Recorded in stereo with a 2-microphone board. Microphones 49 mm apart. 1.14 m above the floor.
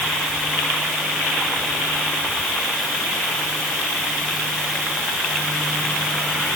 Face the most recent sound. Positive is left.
No sound to turn to.